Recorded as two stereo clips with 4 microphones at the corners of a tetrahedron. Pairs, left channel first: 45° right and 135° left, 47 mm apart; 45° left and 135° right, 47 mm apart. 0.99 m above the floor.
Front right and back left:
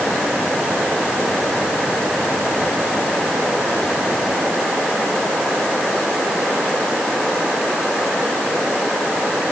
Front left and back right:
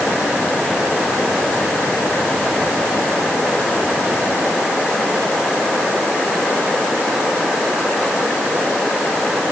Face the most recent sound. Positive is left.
No sound to turn to.